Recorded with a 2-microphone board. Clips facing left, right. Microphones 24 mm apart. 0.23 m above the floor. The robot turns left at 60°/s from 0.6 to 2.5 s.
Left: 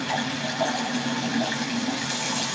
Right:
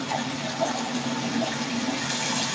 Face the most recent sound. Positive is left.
turn(degrees=-15)